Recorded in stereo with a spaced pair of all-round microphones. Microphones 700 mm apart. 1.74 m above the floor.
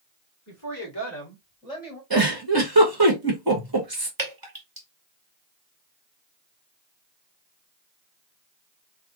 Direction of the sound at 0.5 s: 25° left (ahead or behind).